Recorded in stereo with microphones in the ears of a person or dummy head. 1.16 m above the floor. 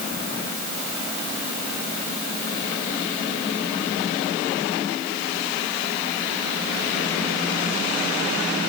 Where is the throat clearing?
No throat clearing in this recording.